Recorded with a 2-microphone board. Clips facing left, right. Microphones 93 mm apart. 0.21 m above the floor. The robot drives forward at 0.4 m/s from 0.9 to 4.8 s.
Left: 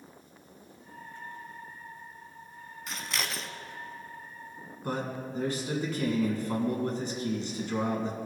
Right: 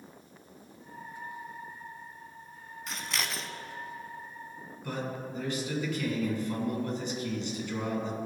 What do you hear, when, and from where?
2.9 s scissors: centre (ahead or behind), 0.7 m
4.8 s a man speaking: 40° left (ahead or behind), 1.7 m